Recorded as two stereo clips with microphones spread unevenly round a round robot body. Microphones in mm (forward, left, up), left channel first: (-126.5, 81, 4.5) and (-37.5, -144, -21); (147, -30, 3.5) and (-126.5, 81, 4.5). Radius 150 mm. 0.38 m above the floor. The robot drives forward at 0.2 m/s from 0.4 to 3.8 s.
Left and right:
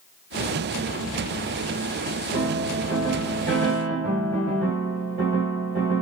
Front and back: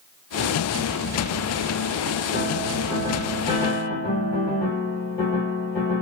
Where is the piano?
50° right, 1.6 m; by 6.0 s 60° right, 1.5 m.